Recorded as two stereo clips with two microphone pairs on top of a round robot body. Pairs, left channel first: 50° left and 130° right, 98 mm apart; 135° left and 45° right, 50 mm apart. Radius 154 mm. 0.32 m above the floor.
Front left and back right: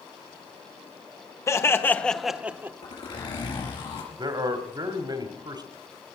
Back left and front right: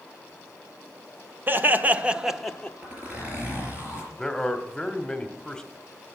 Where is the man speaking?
150° right, 1.7 m.